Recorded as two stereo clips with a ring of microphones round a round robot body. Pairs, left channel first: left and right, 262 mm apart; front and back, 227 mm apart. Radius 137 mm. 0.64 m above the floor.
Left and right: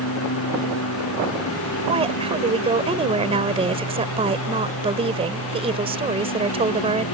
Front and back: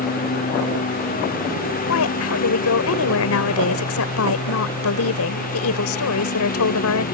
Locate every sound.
0.0 s a lawn mower: 50° left
1.9 s a woman speaking: 20° right